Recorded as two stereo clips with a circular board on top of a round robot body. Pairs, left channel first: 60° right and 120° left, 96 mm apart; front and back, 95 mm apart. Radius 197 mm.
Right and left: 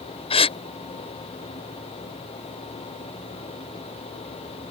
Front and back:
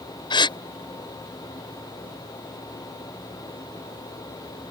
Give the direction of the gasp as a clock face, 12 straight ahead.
1 o'clock.